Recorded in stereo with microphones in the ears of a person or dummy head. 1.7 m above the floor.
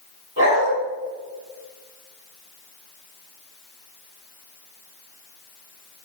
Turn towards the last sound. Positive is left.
turn(degrees=-30)  # may be behind; listen again after turning